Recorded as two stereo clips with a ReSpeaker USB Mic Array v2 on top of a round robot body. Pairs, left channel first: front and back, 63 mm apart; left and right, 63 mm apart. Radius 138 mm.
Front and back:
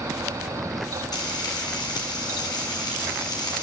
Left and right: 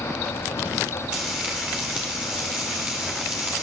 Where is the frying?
15° right, 1.9 m.